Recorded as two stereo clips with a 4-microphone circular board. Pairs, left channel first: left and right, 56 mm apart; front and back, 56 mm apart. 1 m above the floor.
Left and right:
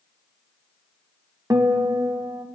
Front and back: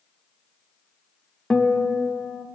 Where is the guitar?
80° right, 0.6 m.